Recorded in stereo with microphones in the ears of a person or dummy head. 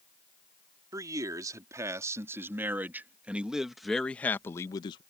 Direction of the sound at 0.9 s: 20° right (ahead or behind).